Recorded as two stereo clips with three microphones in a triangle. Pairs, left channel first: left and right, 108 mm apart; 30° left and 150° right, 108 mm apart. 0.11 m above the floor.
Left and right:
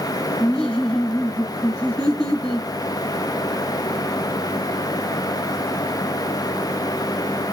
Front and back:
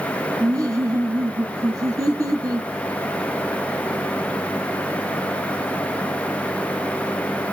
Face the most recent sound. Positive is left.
turn(degrees=170)